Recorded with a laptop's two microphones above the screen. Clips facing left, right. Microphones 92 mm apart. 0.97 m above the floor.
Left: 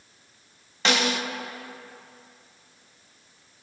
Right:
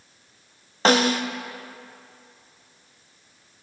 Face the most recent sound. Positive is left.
turn(degrees=-40)  # may be behind; listen again after turning